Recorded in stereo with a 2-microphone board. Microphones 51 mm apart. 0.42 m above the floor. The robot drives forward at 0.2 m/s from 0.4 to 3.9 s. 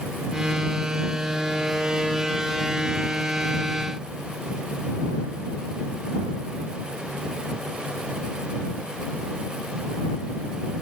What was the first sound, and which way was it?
Only background noise.